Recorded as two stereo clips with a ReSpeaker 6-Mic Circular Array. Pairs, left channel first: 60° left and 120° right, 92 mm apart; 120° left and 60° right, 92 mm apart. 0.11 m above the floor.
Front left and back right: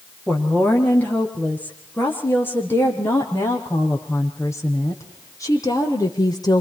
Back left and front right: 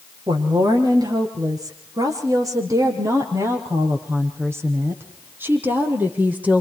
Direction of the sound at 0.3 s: 15° right.